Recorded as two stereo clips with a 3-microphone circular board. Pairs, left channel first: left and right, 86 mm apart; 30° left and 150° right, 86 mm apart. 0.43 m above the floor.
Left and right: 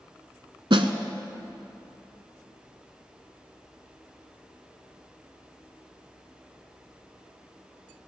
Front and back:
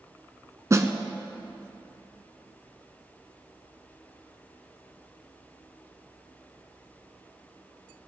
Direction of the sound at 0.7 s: 95° right.